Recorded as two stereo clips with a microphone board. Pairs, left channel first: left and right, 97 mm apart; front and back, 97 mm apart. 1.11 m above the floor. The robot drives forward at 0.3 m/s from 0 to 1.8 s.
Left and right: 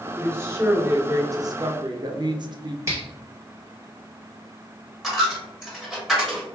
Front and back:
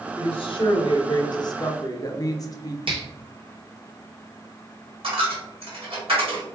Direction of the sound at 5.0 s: 175° right.